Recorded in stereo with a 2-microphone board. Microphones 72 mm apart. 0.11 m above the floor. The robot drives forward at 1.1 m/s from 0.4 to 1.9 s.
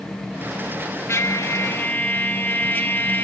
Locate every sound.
1.1 s a trumpet: 40° left (ahead or behind), 0.7 m; by 3.2 s 30° left (ahead or behind), 0.9 m